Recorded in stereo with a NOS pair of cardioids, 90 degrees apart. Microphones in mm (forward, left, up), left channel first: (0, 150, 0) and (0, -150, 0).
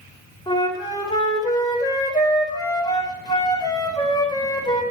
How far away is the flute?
About 4 m.